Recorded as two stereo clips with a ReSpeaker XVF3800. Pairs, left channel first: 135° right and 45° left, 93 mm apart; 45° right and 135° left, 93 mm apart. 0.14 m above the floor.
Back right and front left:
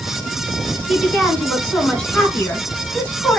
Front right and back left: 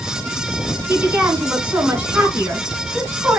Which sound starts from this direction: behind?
A woman speaking, at 0.9 s.